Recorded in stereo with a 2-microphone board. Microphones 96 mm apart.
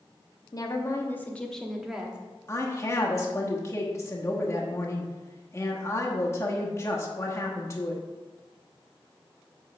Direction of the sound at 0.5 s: 40° left (ahead or behind).